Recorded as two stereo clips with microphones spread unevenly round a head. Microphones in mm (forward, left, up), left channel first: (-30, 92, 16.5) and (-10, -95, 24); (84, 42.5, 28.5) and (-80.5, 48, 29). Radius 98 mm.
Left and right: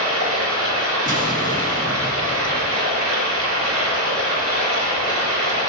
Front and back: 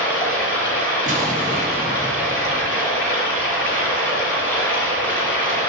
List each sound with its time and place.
0.0 s running water: 85° right, 5 m
1.1 s an explosion: 130° right, 1.8 m